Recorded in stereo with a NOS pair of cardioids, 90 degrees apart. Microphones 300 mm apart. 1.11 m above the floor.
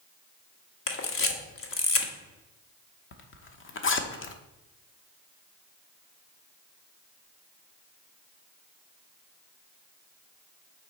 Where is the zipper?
45° left, 0.9 m.